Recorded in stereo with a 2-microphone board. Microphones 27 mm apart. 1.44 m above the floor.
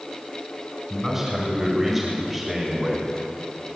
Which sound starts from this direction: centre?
A man speaking, at 0.9 s.